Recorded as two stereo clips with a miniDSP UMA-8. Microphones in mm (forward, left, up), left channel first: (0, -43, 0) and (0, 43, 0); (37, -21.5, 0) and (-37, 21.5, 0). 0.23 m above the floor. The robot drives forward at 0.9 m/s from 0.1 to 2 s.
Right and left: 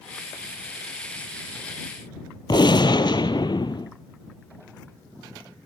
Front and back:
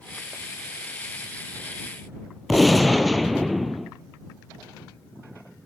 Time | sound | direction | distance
2.5 | a gunshot | 120° right | 0.9 m